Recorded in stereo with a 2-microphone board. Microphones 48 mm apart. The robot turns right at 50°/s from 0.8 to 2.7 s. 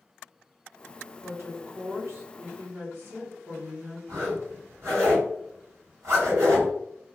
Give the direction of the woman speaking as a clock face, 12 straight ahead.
4 o'clock.